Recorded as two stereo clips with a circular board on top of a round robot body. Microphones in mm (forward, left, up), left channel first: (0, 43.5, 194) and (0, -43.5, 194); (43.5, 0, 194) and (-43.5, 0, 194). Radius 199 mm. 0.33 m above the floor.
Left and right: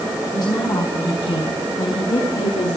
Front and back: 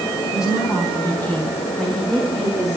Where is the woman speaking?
45° left, 3.5 m; by 2.8 s 95° left, 5.5 m.